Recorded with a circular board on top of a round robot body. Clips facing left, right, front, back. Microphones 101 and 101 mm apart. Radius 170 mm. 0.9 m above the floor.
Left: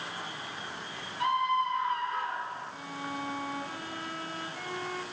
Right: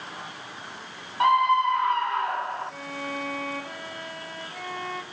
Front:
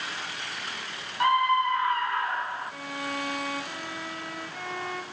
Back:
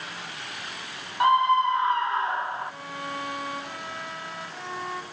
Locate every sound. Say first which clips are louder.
1.2 s a scream: right 8 dB, back 3 dB; 115° right, 1.6 m
2.7 s a violin: right 4 dB, front 1 dB; 100° right, 5.5 m